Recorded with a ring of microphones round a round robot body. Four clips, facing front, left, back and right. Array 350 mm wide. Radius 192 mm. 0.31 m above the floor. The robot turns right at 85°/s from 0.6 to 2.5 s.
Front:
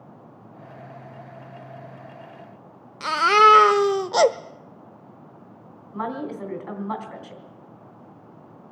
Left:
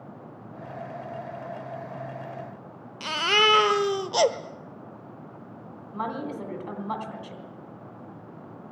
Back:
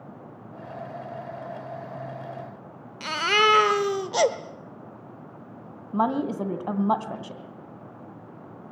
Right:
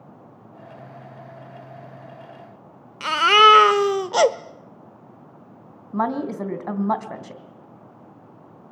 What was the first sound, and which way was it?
A baby crying, 45° right.